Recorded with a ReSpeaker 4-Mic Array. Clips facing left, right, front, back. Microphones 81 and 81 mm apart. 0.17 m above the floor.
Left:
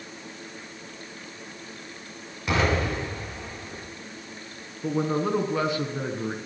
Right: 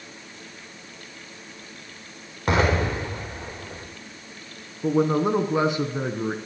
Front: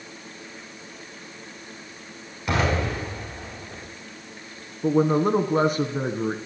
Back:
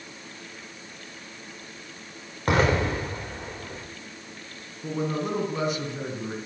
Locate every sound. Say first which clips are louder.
2.5 s an explosion: right 3 dB, back 2 dB; 135° right, 6 m
4.8 s a man speaking: right 5 dB, front 9 dB; 25° right, 1.4 m